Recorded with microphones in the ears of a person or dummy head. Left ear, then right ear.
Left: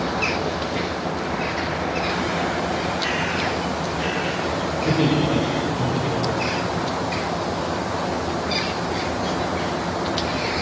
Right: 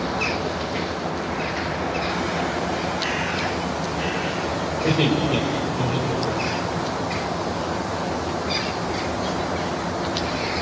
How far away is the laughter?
About 4 m.